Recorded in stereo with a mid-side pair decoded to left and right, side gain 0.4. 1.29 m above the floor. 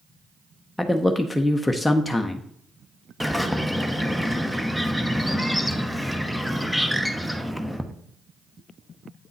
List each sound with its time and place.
0.8 s a man speaking: 10° left, 0.7 m
3.2 s a bird: straight ahead, 0.9 m